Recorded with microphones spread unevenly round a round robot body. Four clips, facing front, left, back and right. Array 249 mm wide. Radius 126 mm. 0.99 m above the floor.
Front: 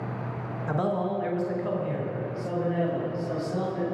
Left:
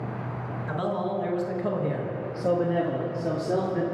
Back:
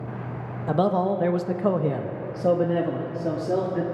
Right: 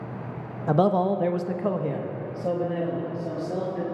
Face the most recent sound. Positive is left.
turn(degrees=145)